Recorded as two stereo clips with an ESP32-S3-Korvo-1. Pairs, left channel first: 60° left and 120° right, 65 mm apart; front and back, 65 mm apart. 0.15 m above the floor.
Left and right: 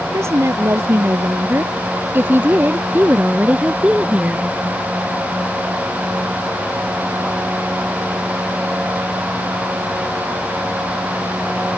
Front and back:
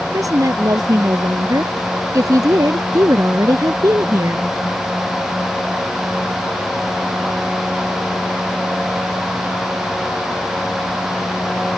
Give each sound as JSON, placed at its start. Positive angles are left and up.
{"t": 0.1, "sound": "a woman speaking", "azimuth_deg": -160}